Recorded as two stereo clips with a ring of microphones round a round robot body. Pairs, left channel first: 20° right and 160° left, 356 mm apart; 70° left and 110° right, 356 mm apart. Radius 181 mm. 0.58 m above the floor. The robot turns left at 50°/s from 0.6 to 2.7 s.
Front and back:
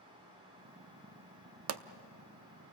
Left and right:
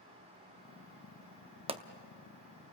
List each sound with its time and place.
1.7 s a pop: straight behind, 0.7 m; by 1.8 s 175° left, 0.7 m